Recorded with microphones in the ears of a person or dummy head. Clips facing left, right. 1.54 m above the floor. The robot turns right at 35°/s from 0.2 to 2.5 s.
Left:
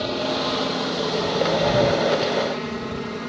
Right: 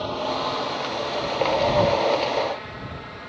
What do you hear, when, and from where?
0.0 s a helicopter: 35° left; by 3.3 s 115° left